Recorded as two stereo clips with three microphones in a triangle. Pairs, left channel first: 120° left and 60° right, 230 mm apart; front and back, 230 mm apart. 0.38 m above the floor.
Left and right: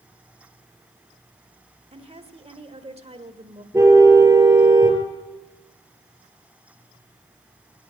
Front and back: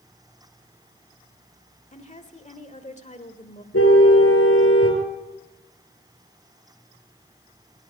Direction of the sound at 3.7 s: 15° left.